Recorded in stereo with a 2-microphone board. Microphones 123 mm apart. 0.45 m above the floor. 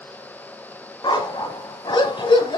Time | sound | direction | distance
1.0 | a dog barking | 40° left (ahead or behind) | 1.0 m